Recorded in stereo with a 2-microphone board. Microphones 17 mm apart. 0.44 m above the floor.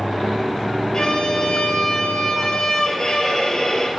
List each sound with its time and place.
0.9 s a violin: 45° left (ahead or behind), 3 m